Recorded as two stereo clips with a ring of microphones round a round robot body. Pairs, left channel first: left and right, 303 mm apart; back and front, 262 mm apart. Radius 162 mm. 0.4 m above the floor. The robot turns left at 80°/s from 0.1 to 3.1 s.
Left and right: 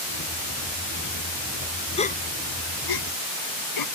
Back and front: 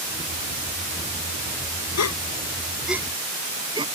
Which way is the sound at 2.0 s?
160° left.